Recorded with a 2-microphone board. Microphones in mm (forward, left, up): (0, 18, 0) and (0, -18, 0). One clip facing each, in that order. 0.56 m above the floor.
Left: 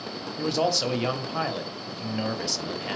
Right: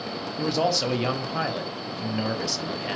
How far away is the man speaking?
About 1.1 m.